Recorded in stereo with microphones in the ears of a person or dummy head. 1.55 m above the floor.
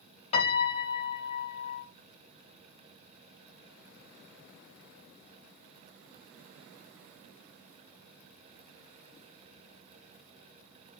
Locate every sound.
0.3 s a piano: 35° left (ahead or behind), 0.9 m